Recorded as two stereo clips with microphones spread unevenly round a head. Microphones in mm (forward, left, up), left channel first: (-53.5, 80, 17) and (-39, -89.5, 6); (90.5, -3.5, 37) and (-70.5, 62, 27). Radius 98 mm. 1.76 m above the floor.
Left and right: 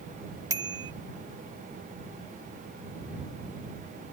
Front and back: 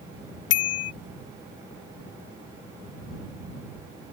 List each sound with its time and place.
0.5 s a bicycle bell: 10° right